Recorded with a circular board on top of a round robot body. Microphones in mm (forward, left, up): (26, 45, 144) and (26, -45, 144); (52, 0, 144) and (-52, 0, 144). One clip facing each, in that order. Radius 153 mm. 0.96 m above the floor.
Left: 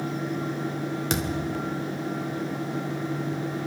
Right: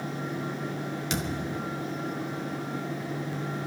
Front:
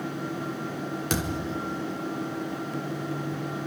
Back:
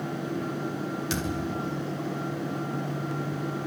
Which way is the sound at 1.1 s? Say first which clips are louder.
Left 3 dB, front 2 dB; 45° left.